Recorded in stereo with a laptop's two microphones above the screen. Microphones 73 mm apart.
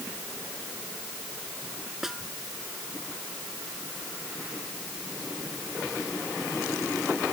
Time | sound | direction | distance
2.0 | a snare drum | 5° right (ahead or behind) | ?